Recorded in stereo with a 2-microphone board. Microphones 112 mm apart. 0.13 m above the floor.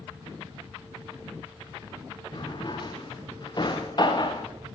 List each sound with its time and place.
2.3 s a drawer: 45° left (ahead or behind), 3.5 m